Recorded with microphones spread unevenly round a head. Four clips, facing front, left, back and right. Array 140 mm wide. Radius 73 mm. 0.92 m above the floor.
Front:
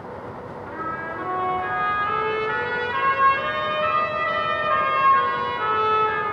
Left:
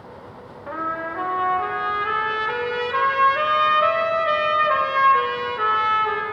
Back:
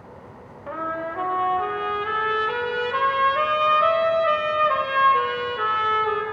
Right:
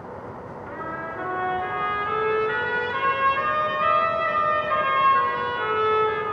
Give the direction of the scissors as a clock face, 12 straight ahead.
I don't hear scissors.